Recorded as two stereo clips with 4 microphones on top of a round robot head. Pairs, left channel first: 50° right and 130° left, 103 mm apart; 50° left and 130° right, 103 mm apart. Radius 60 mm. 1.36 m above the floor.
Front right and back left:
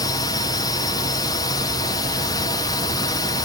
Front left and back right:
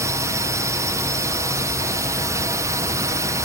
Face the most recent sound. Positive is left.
turn(degrees=-85)